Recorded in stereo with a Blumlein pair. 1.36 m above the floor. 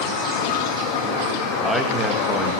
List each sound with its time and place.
1.6 s a man speaking: straight ahead, 2 m